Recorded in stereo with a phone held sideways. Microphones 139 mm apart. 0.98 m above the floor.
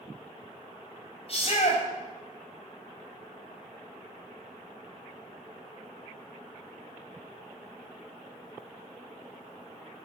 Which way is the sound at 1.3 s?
40° left (ahead or behind).